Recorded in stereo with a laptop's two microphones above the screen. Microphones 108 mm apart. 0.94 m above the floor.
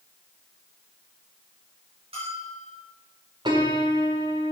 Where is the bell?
55° right (ahead or behind), 6.5 m.